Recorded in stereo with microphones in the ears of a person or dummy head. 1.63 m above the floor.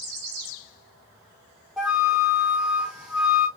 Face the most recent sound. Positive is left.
turn(degrees=0)  # may be behind; listen again after turning